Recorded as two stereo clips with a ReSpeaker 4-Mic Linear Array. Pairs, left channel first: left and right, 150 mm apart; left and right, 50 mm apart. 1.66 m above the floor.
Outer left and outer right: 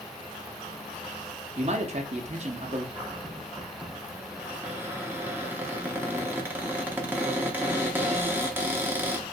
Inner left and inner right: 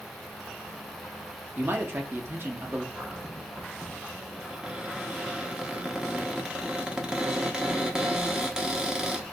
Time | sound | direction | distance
1.6 | a man speaking | 50° right (ahead or behind) | 0.8 m
3.0 | a cupboard door | 15° right (ahead or behind) | 0.7 m